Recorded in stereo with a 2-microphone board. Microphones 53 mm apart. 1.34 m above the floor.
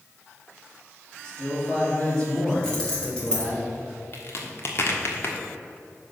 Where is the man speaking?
15° left (ahead or behind), 2.5 m.